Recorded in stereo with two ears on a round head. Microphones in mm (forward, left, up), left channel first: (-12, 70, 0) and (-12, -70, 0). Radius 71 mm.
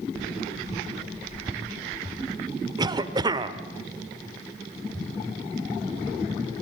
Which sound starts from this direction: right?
A cough, at 2.8 s.